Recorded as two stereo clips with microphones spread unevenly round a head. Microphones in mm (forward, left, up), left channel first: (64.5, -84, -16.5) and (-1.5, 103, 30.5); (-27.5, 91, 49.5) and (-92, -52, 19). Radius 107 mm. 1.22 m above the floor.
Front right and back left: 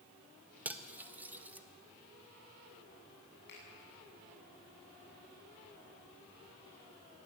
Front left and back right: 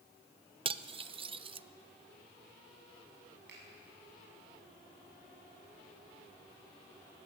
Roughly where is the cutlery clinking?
Behind.